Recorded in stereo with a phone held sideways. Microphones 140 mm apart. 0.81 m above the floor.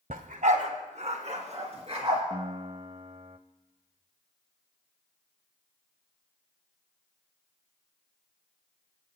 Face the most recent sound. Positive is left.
turn(degrees=-40)  # may be behind; listen again after turning